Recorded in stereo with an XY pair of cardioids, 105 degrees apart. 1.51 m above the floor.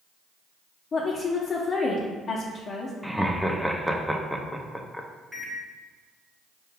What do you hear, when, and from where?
0.9 s a woman speaking: 45° left, 0.6 m
3.0 s laughter: straight ahead, 0.5 m
5.3 s a microwave: straight ahead, 1.2 m